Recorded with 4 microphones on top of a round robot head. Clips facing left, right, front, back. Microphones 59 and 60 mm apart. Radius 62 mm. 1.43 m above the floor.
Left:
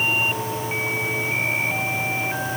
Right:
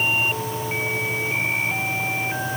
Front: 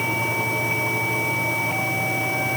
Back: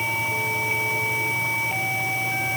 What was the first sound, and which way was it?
Only background noise.